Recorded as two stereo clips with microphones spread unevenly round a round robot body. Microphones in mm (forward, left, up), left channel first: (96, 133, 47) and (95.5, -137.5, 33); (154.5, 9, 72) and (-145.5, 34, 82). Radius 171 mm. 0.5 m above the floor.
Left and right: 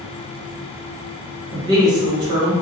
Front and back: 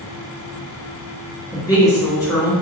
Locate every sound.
1.5 s a woman speaking: 55° right, 0.9 m